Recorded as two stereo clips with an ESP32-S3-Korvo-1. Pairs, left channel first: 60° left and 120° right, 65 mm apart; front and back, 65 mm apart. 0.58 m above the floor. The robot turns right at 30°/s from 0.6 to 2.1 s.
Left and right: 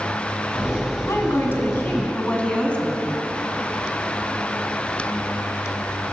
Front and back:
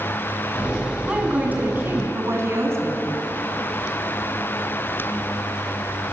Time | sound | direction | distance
1.1 | a woman speaking | 100° left | 5 m